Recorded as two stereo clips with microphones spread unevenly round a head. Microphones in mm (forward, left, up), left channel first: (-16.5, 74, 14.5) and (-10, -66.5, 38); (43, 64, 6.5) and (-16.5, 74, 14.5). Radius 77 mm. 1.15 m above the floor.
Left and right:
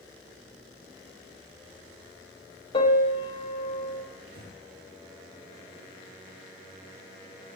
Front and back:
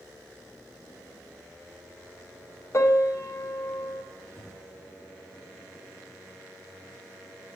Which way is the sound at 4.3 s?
95° right.